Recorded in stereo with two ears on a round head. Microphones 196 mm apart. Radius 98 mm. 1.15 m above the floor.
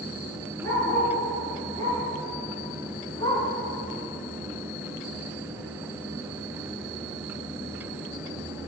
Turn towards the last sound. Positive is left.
turn(degrees=20)  # may be behind; listen again after turning